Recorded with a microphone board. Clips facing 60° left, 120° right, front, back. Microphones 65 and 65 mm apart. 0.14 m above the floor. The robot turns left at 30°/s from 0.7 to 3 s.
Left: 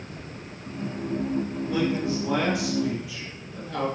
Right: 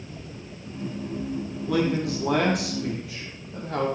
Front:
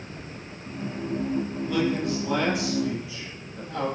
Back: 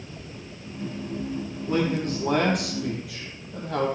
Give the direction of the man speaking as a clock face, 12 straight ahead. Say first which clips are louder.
Right 3 dB, back 2 dB; 4 o'clock.